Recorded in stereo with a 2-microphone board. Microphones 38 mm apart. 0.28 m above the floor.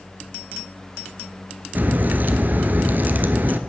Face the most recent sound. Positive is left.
turn(degrees=-45)  # may be behind; listen again after turning